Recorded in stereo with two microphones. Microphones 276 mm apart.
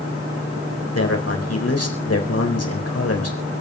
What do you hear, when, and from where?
0.9 s a man speaking: 60° left (ahead or behind), 4 m